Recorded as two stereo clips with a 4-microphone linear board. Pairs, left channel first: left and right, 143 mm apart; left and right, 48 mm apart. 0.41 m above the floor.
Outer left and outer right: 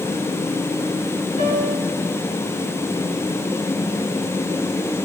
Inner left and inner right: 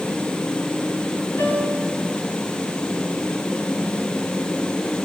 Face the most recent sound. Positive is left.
turn(degrees=55)  # may be behind; listen again after turning